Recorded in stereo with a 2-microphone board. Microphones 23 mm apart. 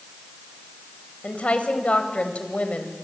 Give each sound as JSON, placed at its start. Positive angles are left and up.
{"t": 1.2, "sound": "a woman speaking", "side_deg": 65, "distance_m": 3.0}